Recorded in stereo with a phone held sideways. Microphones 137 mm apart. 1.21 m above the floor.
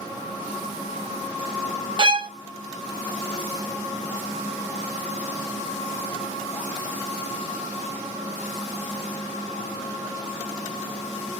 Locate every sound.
2.0 s a violin: 35° right (ahead or behind), 0.5 m